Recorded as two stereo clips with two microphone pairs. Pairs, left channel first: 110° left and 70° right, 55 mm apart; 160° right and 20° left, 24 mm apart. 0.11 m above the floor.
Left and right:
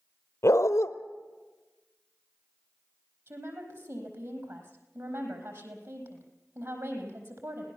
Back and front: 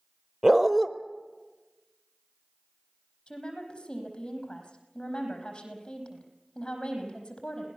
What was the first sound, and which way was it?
A dog barking, 90° left.